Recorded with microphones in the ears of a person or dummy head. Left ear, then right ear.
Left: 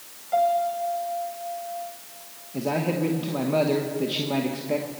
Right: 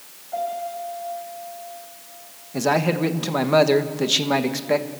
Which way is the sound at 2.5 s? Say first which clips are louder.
Right 6 dB; 50° right (ahead or behind).